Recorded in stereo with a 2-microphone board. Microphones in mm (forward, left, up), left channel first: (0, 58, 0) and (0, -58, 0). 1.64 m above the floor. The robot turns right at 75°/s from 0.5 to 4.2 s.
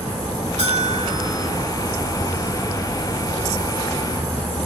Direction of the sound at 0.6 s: 80° right.